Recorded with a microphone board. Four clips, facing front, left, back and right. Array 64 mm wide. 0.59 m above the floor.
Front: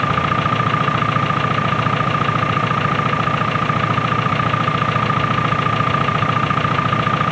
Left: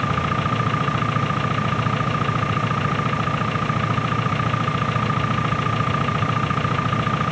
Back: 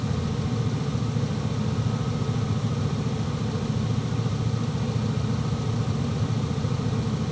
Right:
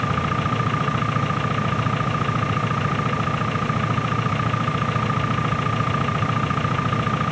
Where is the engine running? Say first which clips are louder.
Left 1 dB, front 13 dB; 5° left.